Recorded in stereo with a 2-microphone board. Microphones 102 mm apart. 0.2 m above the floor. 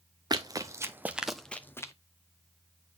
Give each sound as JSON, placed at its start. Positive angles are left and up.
{"t": 0.3, "sound": "running footsteps", "side_deg": -40, "distance_m": 0.9}